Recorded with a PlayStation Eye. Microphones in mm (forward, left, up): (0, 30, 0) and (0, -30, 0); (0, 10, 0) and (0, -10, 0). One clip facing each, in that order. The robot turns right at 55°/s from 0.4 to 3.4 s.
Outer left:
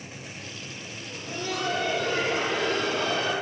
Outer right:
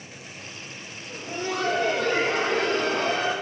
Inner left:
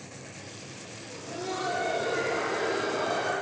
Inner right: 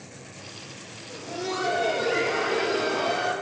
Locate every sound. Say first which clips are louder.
1.1 s laughter: outer right 3 dB, inner right 4 dB; 160° right, 3.5 m; by 3.3 s 40° right, 3.5 m